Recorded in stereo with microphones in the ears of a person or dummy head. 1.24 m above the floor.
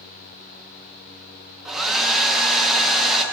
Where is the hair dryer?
Centre (ahead or behind), 0.9 m.